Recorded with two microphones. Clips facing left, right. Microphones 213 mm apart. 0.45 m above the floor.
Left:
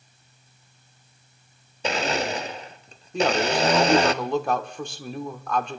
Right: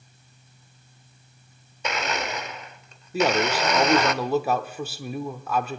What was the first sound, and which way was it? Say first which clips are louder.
A blender: left 4 dB; 30° left (ahead or behind).